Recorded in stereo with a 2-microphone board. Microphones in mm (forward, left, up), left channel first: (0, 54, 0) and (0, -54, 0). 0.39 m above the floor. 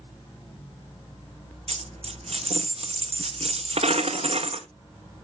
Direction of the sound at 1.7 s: 70° right (ahead or behind).